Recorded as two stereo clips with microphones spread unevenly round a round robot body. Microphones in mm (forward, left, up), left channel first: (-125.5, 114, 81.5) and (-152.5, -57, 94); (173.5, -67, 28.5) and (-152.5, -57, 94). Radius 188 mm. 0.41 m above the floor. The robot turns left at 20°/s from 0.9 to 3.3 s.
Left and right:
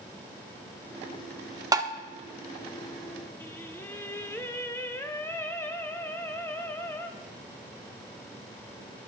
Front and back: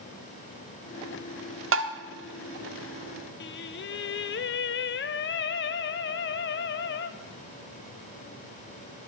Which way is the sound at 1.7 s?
155° right.